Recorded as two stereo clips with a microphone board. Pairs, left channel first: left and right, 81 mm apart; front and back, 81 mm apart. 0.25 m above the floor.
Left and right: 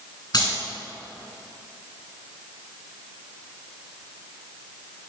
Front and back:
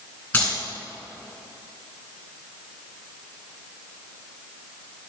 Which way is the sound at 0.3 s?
70° left.